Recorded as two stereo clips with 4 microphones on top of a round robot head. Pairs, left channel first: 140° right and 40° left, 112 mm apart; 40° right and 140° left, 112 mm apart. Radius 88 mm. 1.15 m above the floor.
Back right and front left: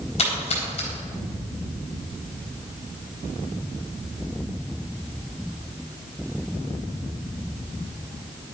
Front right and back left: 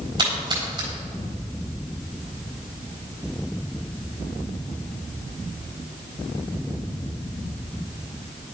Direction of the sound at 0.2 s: 170° right.